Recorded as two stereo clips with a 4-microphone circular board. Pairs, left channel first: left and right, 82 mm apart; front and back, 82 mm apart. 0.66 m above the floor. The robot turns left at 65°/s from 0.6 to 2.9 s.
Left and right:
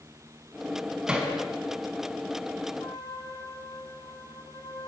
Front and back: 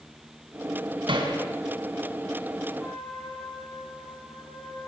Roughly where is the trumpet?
Left.